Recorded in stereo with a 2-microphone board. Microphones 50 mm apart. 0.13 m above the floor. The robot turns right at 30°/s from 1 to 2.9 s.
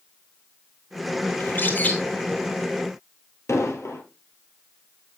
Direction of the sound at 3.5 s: 65° left (ahead or behind).